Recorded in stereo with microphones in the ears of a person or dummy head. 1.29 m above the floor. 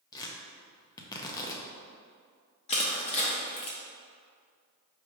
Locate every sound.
0.1 s tearing paper: 20° left (ahead or behind), 0.5 m
2.7 s crushing: 35° left (ahead or behind), 0.8 m